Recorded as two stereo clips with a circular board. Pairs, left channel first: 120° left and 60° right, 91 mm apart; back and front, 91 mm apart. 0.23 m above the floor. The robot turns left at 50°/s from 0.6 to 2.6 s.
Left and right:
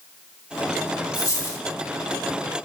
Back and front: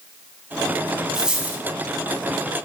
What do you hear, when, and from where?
1.1 s a dropped coin: 85° left, 0.8 m; by 1.6 s 60° left, 0.8 m